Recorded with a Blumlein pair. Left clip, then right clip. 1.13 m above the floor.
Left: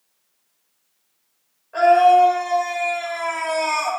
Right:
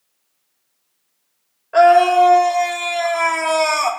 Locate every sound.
1.7 s a scream: 30° right, 2.5 m; by 3.9 s 60° right, 2 m